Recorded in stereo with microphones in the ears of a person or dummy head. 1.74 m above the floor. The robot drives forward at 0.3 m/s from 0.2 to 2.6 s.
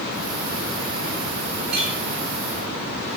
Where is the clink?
55° right (ahead or behind), 4 m.